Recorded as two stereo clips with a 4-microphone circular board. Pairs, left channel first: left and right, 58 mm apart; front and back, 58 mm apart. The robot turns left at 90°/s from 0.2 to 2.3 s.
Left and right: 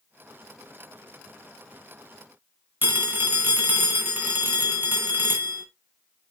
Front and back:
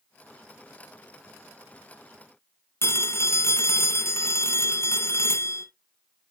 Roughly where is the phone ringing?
Ahead right.